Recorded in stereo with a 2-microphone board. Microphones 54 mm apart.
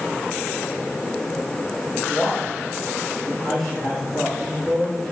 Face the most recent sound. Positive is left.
turn(degrees=10)  # may be behind; listen again after turning